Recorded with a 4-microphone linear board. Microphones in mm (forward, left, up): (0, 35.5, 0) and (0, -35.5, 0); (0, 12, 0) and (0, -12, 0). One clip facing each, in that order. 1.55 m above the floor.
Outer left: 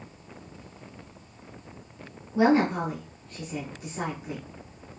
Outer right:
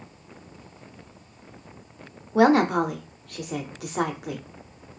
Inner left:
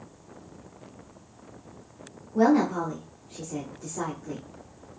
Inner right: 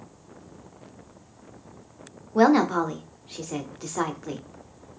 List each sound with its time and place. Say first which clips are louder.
2.4 s a woman speaking: outer right 4 dB, inner right 3 dB; 70° right (ahead or behind), 0.5 m